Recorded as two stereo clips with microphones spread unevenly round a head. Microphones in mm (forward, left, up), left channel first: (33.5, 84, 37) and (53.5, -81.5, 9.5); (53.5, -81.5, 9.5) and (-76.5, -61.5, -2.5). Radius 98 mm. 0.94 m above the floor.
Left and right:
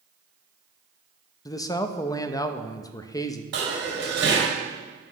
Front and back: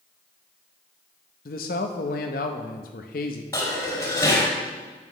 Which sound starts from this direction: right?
Dishes clattering, at 3.5 s.